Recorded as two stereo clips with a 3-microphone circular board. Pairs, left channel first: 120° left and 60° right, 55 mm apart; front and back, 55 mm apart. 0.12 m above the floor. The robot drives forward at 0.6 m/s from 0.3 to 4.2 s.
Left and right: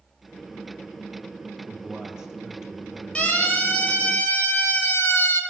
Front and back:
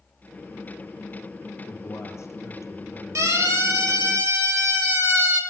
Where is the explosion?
I don't hear an explosion.